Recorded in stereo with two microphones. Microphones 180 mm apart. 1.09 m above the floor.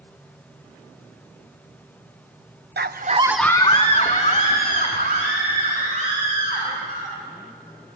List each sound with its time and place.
2.8 s a scream: 65° right (ahead or behind), 0.8 m; by 7.1 s 50° left (ahead or behind), 5.5 m